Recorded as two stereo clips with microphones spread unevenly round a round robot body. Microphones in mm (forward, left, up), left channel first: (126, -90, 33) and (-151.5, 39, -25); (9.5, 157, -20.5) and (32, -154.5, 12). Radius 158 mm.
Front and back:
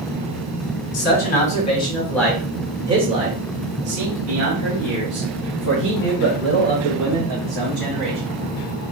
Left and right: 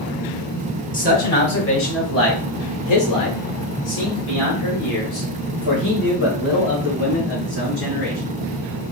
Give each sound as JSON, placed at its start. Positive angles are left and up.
{"t": 0.9, "sound": "a man speaking", "azimuth_deg": 35, "distance_m": 1.6}